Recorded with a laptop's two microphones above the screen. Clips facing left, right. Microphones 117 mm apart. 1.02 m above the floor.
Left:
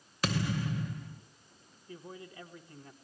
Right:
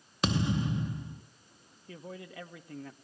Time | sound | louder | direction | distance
0.2 | a thud | right 3 dB | 20° right (ahead or behind) | 0.7 m
1.9 | a man speaking | right 2 dB | 65° right (ahead or behind) | 2.0 m